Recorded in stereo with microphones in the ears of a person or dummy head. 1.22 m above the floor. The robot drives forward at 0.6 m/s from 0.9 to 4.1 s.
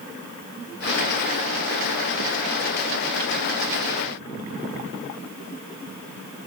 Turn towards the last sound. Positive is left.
No sound to turn to.